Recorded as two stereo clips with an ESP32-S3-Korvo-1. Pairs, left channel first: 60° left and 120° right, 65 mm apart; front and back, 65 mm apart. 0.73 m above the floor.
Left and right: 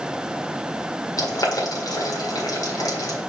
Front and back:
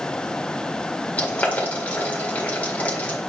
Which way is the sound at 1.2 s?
65° left.